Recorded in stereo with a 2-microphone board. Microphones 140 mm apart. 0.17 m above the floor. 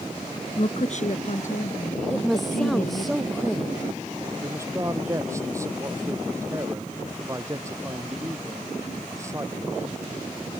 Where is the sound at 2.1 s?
Centre (ahead or behind).